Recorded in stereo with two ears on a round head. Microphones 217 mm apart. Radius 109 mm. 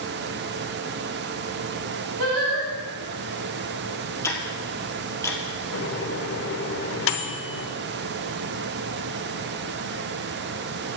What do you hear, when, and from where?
2.2 s singing: 65° right (ahead or behind), 4 m
4.2 s ticking: 10° left (ahead or behind), 1.7 m
5.7 s a microwave: 55° left (ahead or behind), 1.0 m